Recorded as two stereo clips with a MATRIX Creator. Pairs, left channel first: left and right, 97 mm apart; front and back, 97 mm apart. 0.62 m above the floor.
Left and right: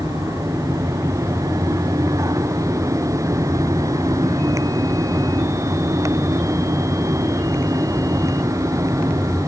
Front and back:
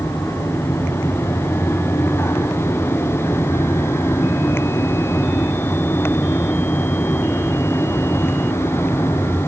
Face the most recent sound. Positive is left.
No sound to turn to.